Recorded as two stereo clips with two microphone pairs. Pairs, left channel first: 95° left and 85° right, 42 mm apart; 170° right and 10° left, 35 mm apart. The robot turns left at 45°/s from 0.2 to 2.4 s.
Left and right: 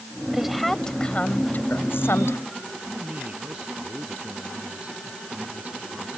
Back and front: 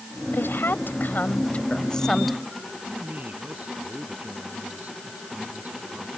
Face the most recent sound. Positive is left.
turn(degrees=-35)